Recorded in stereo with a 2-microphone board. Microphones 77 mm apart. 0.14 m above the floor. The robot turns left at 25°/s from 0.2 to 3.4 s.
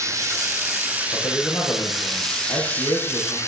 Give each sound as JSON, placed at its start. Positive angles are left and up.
{"t": 0.0, "sound": "running water", "azimuth_deg": -135, "distance_m": 1.3}
{"t": 1.1, "sound": "a man speaking", "azimuth_deg": 120, "distance_m": 4.0}